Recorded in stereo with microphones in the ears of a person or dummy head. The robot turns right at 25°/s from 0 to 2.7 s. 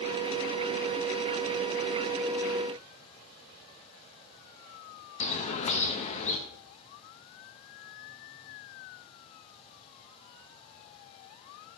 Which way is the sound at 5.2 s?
40° left (ahead or behind).